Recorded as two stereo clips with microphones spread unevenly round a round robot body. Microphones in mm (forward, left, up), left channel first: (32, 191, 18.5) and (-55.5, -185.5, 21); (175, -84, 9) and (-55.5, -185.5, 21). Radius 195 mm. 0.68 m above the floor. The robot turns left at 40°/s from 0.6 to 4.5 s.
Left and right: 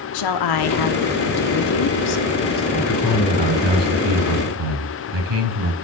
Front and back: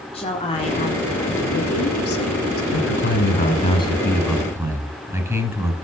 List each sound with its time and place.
0.1 s a woman speaking: 95° left, 1.6 m; by 2.6 s 15° left, 1.6 m
2.7 s a man speaking: 5° right, 6.5 m; by 5.8 s 75° right, 6.5 m